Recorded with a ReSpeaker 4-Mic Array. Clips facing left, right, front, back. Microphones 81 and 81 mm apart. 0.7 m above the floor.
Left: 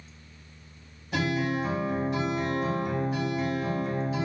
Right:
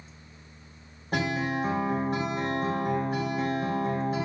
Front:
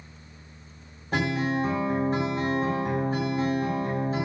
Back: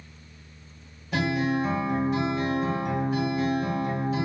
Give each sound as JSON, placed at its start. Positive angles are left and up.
{"t": 1.1, "sound": "a guitar", "azimuth_deg": -45, "distance_m": 2.5}